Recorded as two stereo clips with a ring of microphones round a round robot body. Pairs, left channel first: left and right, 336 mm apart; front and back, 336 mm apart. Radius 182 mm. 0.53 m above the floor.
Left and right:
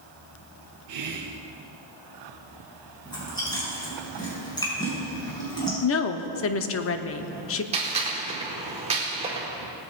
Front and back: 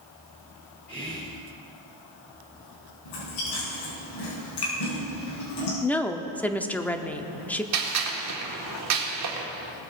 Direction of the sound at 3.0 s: 10° left.